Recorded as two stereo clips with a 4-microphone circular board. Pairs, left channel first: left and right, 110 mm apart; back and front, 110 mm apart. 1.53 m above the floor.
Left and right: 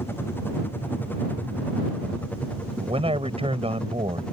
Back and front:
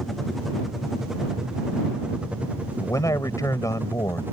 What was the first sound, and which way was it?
A helicopter, 95° left.